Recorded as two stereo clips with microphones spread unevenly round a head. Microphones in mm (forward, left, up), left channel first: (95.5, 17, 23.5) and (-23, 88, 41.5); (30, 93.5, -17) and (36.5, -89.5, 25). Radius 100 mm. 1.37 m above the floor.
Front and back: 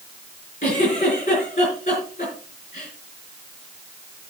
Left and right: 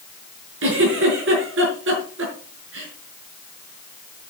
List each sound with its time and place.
0.6 s a giggle: 90° right, 5.5 m